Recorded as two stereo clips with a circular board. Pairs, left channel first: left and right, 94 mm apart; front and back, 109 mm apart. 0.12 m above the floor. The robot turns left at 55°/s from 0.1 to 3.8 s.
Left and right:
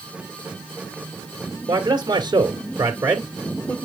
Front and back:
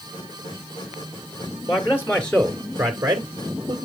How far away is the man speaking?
About 1.7 m.